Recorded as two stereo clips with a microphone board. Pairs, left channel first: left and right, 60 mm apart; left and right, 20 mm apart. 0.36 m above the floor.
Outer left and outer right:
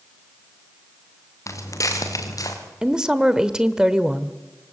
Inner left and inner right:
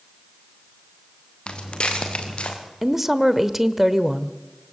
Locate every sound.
1.5 s footsteps: 60° left (ahead or behind), 4.5 m; by 2.6 s 75° left (ahead or behind), 5 m
2.8 s a woman speaking: 15° right (ahead or behind), 1.0 m